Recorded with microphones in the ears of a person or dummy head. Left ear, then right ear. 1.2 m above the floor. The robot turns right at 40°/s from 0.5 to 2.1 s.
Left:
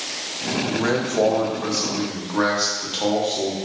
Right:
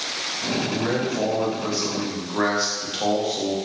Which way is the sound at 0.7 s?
120° left.